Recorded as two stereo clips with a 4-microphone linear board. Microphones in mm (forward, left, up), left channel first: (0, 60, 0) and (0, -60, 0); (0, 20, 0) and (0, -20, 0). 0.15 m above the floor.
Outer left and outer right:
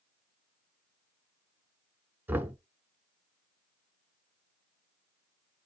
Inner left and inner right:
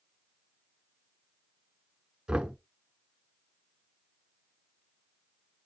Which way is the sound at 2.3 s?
15° right (ahead or behind).